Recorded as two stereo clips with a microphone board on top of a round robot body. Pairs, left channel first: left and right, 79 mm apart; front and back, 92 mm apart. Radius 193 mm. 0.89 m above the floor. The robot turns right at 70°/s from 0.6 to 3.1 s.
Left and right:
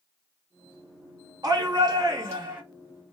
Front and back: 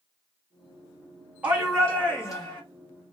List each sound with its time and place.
1.4 s a shout: 105° right, 1.2 m; by 2.6 s 25° right, 1.2 m